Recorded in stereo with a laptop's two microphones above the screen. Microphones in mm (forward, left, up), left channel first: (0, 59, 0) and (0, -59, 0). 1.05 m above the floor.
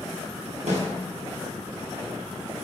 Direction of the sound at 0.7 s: 80° right.